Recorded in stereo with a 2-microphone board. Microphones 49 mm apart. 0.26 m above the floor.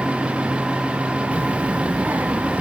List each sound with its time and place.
1.3 s a child speaking: 30° right (ahead or behind), 1.0 m; by 2.6 s 35° right (ahead or behind), 2 m